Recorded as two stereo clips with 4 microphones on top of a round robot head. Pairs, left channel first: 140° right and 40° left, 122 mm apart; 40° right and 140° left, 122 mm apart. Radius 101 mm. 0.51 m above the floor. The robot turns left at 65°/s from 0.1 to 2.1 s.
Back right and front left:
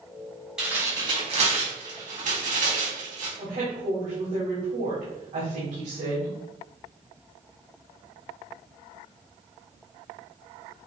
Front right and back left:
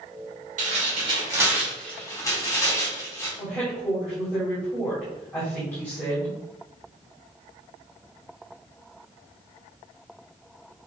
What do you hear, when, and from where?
0.6 s tearing paper: 125° left, 3.5 m; by 3.3 s 25° left, 3.5 m
3.4 s a woman speaking: 40° left, 3.5 m